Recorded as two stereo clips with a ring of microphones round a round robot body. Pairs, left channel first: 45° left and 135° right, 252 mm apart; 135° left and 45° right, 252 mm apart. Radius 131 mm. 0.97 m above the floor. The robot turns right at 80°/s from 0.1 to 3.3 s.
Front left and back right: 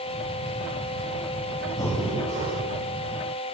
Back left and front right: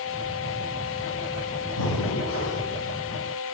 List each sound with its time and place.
1.8 s breathing: 115° left, 2 m; by 2.7 s 165° right, 2 m